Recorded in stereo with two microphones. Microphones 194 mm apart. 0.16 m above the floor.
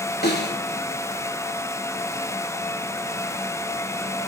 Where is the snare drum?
60° left (ahead or behind), 3.5 m.